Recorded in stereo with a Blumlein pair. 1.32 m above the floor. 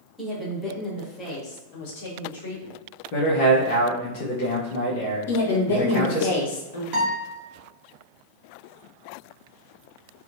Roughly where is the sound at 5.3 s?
Ahead left.